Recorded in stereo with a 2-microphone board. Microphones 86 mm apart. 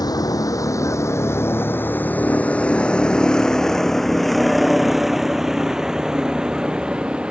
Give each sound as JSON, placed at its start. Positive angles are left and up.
{"t": 0.0, "sound": "a vehicle", "side_deg": 50}